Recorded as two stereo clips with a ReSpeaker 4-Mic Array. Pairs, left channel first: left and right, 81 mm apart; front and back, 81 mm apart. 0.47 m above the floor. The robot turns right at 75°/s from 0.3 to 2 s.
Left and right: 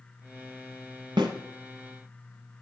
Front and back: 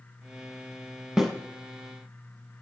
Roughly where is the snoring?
I don't hear snoring.